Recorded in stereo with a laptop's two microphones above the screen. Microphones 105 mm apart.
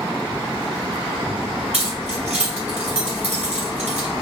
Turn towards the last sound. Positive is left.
turn(degrees=-80)